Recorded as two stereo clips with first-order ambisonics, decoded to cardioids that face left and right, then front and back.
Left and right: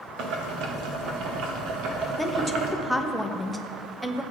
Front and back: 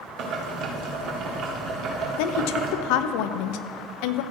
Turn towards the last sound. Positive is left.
turn(degrees=0)